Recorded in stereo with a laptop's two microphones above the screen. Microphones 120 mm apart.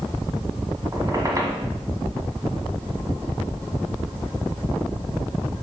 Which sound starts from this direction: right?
A squeak, at 0.9 s.